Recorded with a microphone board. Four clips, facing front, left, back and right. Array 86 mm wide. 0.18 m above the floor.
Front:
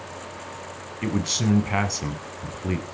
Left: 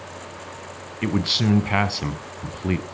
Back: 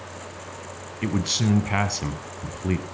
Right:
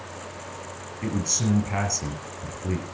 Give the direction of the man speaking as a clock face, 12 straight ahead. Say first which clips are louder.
Left 5 dB, even; 9 o'clock.